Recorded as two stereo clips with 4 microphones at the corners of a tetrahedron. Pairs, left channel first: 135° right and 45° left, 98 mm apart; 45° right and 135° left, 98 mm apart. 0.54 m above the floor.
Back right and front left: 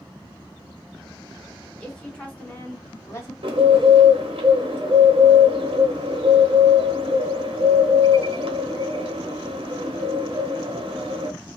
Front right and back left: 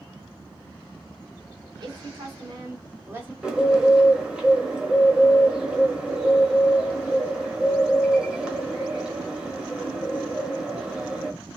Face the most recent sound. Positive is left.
turn(degrees=55)